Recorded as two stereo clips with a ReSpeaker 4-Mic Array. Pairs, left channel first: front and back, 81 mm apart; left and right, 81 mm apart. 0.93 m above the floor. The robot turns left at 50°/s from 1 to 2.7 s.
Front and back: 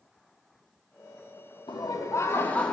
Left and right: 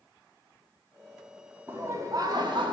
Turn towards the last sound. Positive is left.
turn(degrees=-80)